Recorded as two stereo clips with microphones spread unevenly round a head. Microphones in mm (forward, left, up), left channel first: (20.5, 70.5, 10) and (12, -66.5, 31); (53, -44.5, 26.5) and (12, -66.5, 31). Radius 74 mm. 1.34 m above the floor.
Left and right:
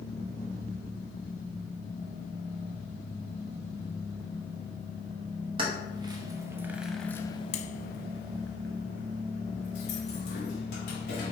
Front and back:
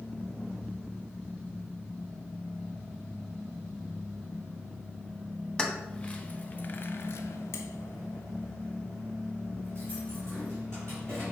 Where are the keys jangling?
40° right, 1.3 m; by 11.3 s 110° left, 2.5 m.